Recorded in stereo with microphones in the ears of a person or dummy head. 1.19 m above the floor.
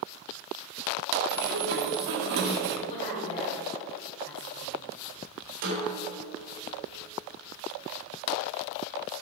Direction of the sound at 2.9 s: 40° left (ahead or behind).